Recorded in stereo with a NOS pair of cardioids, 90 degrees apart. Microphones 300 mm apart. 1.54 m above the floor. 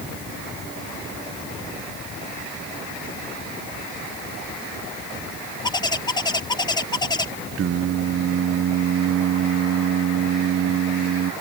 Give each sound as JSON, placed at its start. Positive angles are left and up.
{"t": 5.6, "sound": "a bird", "azimuth_deg": 15}
{"t": 7.6, "sound": "singing", "azimuth_deg": -50}